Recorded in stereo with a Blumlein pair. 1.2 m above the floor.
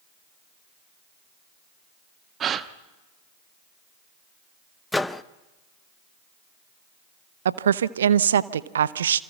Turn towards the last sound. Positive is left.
turn(degrees=-65)